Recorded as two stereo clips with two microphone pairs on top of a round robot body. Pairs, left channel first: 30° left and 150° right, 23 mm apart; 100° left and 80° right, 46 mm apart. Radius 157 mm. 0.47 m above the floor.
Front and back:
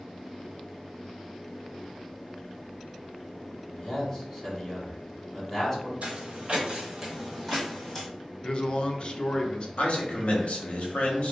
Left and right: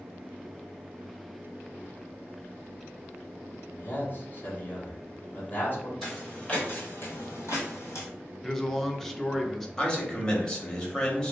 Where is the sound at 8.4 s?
30° left, 0.8 m.